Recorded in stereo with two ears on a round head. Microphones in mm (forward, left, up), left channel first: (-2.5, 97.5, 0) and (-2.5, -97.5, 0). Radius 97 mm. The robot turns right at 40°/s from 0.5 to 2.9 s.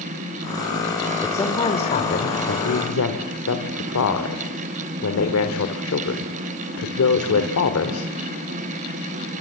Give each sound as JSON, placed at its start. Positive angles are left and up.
{"t": 1.2, "sound": "a woman speaking", "azimuth_deg": 10, "distance_m": 2.0}